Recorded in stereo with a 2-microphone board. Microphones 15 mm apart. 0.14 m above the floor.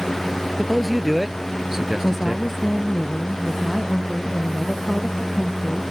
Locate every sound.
0.6 s a man speaking: 5° left (ahead or behind); by 2.5 s 45° right (ahead or behind)
2.0 s a woman speaking: 20° left (ahead or behind)